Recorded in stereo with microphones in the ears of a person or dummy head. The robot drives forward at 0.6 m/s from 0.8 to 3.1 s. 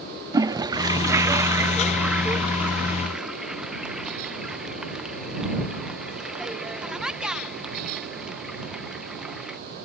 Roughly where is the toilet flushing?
Right.